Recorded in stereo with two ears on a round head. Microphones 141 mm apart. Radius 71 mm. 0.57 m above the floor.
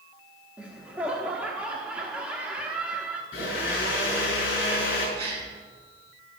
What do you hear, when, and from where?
0.6 s laughter: 10° right (ahead or behind), 0.9 m
3.3 s a blender: 60° left (ahead or behind), 6.5 m
5.2 s a gasp: 35° right (ahead or behind), 5 m